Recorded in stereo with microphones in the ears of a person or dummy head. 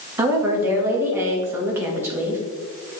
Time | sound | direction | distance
0.2 | a woman speaking | 10° right (ahead or behind) | 1.5 m